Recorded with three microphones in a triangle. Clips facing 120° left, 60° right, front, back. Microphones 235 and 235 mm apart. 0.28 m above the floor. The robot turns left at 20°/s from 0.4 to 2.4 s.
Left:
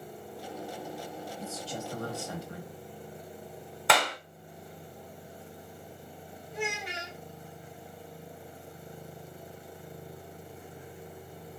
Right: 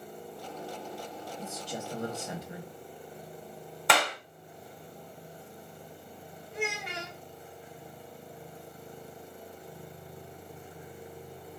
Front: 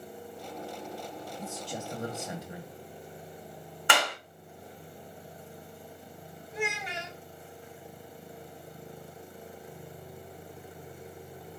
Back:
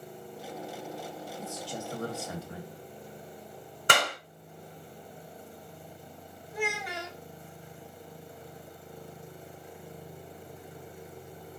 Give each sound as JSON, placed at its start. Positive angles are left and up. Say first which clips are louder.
{"t": 1.4, "sound": "a man speaking", "louder": "right 1 dB, even", "azimuth_deg": -15, "distance_m": 0.9}
{"t": 3.9, "sound": "a clap", "louder": "left 1 dB, back 1 dB", "azimuth_deg": -150, "distance_m": 1.1}
{"t": 6.5, "sound": "a child speaking", "louder": "even, back 1 dB", "azimuth_deg": -65, "distance_m": 1.0}